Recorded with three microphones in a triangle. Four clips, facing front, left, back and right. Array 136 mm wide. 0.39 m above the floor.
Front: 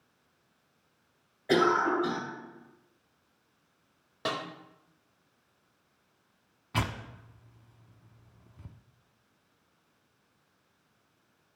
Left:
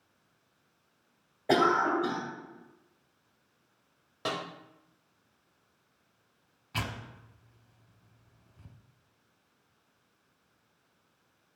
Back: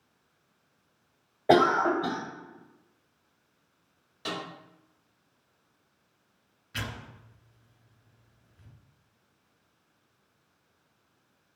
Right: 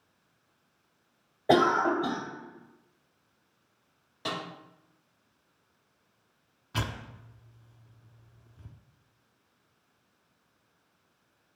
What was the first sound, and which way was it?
A cough, 170° right.